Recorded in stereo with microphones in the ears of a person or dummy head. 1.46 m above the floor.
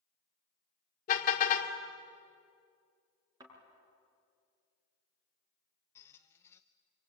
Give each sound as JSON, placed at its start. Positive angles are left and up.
{"t": 1.1, "sound": "a car horn", "side_deg": 45, "distance_m": 2.0}
{"t": 3.4, "sound": "a thud", "side_deg": -25, "distance_m": 6.5}
{"t": 6.0, "sound": "a squeak", "side_deg": 10, "distance_m": 0.6}